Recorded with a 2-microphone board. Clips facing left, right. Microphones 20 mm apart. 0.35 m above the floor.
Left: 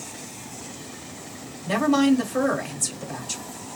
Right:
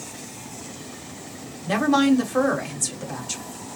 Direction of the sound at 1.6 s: 10° right (ahead or behind).